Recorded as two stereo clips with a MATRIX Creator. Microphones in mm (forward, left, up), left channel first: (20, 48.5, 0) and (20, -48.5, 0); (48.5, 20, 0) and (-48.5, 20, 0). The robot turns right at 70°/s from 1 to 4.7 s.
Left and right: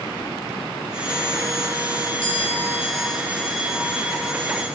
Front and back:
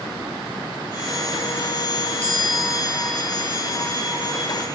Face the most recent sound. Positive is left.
turn(degrees=-110)